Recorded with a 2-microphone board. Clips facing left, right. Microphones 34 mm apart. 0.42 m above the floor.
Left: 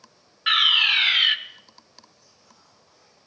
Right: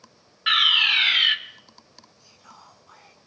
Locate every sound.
0.5 s a fire alarm: centre (ahead or behind), 2 m
2.2 s whispering: 65° right (ahead or behind), 4 m